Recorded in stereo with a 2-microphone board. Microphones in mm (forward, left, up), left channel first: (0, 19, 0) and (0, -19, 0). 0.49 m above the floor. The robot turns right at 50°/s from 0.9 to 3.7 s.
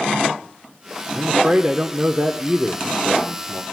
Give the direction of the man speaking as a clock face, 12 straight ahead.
4 o'clock.